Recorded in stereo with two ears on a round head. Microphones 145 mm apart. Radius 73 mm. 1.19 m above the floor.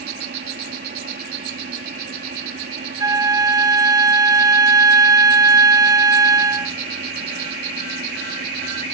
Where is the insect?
65° right (ahead or behind).